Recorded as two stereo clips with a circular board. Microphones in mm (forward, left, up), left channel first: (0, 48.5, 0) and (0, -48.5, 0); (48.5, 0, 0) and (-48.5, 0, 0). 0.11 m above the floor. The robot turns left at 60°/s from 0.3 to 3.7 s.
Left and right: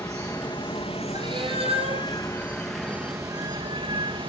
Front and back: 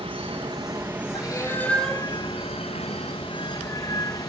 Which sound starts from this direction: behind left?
Running water, at 0.0 s.